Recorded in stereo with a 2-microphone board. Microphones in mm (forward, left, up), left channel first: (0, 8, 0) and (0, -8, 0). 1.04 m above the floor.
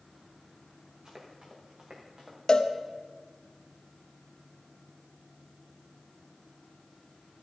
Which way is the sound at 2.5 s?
45° left (ahead or behind).